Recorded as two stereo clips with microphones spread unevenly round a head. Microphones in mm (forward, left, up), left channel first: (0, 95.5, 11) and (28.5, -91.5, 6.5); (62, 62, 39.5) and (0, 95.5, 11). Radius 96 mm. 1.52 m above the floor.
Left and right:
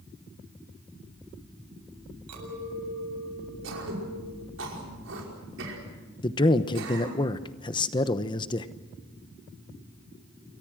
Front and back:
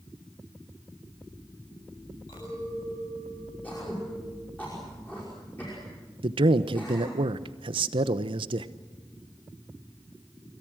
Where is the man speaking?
165° left, 0.9 m.